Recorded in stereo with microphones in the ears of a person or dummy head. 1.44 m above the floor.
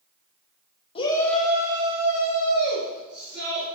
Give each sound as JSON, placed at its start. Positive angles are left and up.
{"t": 0.9, "sound": "a shout", "side_deg": 30, "distance_m": 0.6}